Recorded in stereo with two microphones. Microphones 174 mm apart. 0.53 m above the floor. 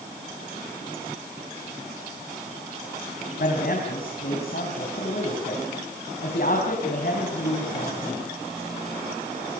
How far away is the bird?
No bird in this recording.